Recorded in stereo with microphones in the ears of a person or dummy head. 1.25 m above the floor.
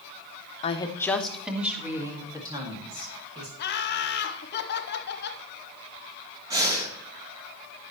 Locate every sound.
0.6 s a woman speaking: 30° left (ahead or behind), 0.9 m; by 3.5 s 25° right (ahead or behind), 3 m
3.6 s laughter: 55° left (ahead or behind), 1.0 m
6.5 s breathing: 20° right (ahead or behind), 1.7 m